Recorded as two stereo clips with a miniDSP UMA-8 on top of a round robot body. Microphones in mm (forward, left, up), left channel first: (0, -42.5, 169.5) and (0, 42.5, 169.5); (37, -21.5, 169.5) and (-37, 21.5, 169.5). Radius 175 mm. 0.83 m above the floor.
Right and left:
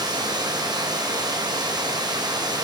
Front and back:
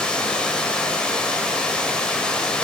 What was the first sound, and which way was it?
Running water, 50° left.